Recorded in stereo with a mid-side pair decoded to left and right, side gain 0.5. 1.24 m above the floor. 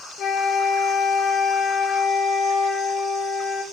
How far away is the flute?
About 1.6 m.